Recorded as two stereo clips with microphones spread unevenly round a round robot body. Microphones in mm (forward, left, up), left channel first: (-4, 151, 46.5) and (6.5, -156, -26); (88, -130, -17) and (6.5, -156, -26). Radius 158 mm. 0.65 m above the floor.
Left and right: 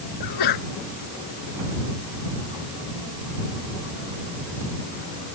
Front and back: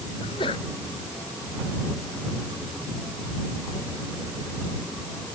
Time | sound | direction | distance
0.2 | a sneeze | 75° left | ?